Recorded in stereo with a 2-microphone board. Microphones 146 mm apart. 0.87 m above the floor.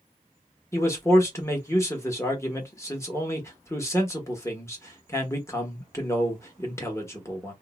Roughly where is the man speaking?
Centre.